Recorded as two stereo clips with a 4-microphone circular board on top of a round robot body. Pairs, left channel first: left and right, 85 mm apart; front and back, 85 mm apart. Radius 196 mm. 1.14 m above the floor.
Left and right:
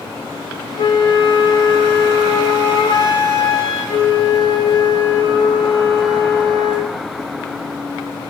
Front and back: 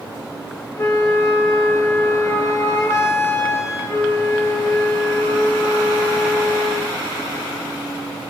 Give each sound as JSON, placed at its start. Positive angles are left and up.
{"t": 0.8, "sound": "a flute", "azimuth_deg": 60, "distance_m": 0.8}